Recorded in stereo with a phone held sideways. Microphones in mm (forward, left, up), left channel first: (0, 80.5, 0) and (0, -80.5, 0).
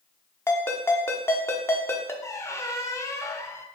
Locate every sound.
0.5 s a ringtone: 15° left (ahead or behind), 1.1 m
2.2 s a squeak: 20° left (ahead or behind), 0.8 m